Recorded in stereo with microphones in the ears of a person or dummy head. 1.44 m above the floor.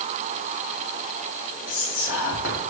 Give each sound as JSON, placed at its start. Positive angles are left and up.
{"t": 1.7, "sound": "whispering", "side_deg": 60, "distance_m": 1.3}